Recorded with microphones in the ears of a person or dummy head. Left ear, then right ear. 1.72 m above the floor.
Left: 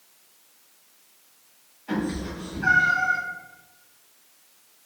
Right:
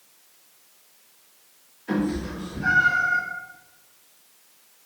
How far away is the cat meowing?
About 2.0 m.